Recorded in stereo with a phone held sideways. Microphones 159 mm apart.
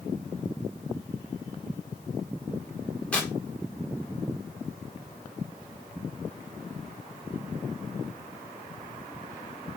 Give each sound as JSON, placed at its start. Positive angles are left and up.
{"t": 3.1, "sound": "tearing paper", "side_deg": 10, "distance_m": 1.4}